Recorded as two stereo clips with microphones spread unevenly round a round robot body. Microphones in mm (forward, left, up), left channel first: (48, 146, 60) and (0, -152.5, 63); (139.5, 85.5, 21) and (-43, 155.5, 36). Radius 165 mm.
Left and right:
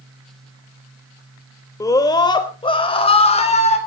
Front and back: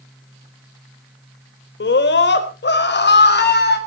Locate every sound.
1.8 s a scream: straight ahead, 3 m; by 3.8 s 10° left, 5 m